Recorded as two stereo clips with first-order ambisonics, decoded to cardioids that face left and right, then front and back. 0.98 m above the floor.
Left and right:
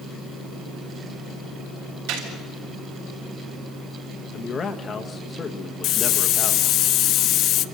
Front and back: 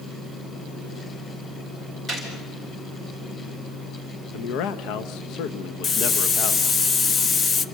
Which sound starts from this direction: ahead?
A man speaking, at 4.3 s.